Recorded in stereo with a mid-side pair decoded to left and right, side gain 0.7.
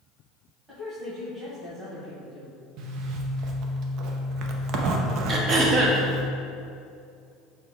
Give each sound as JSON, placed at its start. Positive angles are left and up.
{"t": 0.7, "sound": "a woman speaking", "azimuth_deg": -30, "distance_m": 1.8}
{"t": 2.8, "sound": "a zipper", "azimuth_deg": -60, "distance_m": 0.5}
{"t": 5.3, "sound": "throat clearing", "azimuth_deg": -40, "distance_m": 0.8}